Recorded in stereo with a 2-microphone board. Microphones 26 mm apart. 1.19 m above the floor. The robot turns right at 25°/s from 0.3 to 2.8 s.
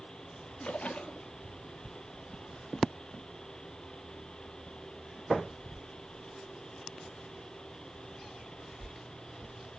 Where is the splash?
65° left (ahead or behind), 1.0 m; by 1.3 s 55° left (ahead or behind), 1.0 m.